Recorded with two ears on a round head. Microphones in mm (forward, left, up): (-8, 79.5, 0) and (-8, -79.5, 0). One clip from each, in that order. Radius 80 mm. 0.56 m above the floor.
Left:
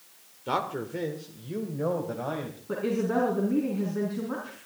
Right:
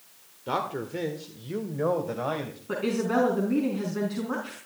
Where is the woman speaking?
60° right (ahead or behind), 5 m.